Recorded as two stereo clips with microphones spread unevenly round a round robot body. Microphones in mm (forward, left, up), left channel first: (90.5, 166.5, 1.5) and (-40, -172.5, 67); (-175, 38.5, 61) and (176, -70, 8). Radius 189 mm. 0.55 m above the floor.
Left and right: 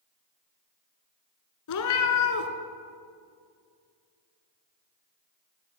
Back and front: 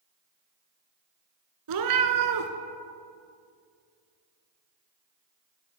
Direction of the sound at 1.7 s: 25° left.